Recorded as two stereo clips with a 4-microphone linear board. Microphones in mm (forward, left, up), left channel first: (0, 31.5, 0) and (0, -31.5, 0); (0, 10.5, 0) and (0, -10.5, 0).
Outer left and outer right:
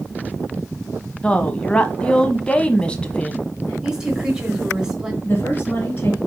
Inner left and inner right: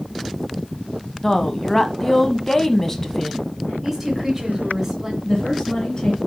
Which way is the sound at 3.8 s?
10° right (ahead or behind).